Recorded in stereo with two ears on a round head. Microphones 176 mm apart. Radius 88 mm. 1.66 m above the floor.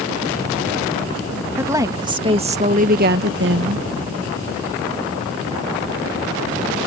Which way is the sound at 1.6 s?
15° right (ahead or behind).